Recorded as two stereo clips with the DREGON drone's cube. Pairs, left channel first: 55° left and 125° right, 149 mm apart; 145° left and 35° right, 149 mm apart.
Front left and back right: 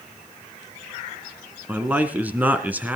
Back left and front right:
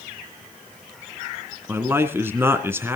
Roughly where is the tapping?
I don't hear tapping.